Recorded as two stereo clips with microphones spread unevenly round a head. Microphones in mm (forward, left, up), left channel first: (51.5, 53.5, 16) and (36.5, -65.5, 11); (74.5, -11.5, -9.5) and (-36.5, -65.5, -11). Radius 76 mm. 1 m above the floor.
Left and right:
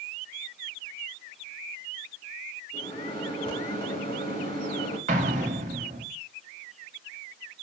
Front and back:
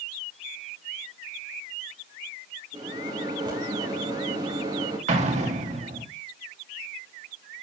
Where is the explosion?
130° right, 1.7 m.